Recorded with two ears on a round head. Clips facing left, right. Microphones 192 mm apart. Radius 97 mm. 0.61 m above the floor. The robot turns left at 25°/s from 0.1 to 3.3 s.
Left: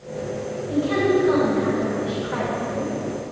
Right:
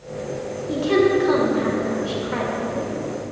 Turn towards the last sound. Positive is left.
turn(degrees=-160)